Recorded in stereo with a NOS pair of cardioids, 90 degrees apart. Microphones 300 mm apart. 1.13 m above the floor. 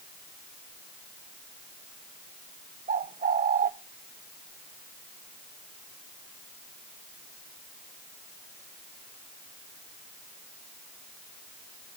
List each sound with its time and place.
2.9 s a bird: 30° right, 0.6 m